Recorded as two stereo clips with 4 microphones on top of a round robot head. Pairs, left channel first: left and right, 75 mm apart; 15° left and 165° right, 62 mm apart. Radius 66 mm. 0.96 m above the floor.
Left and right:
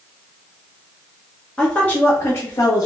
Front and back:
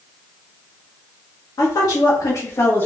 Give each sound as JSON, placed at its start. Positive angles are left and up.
{"t": 1.6, "sound": "a woman speaking", "azimuth_deg": 15, "distance_m": 1.0}